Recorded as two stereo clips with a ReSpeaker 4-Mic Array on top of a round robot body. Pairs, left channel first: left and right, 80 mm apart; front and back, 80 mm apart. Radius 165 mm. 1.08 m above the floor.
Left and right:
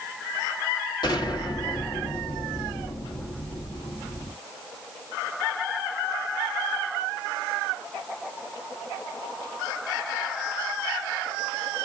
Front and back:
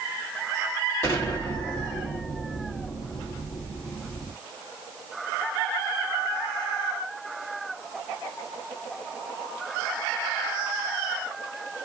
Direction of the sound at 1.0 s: 60° left.